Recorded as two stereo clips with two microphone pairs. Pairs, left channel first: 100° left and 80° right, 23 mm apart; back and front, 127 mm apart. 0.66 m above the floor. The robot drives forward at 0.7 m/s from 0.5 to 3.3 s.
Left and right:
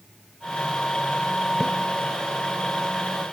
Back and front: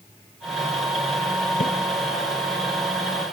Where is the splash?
165° right.